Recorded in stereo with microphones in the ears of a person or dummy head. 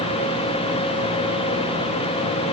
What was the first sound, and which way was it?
Only background noise.